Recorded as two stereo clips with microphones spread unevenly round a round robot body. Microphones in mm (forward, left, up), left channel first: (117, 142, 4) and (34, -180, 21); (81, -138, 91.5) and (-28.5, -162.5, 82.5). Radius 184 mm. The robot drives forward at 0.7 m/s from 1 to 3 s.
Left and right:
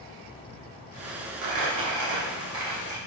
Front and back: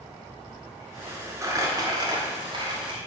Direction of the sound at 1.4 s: 115° right.